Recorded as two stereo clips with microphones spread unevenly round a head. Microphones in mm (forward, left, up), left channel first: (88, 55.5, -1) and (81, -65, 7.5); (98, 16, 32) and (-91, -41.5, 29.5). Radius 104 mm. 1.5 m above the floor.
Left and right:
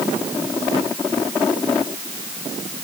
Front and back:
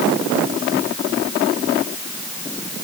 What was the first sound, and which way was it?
Only background noise.